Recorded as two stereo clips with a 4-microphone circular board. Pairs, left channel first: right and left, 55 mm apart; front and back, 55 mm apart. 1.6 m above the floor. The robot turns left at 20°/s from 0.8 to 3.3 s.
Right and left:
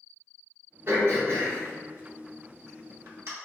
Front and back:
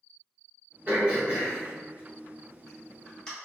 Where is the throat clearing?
125° left, 1.4 m; by 3.3 s 80° left, 1.4 m.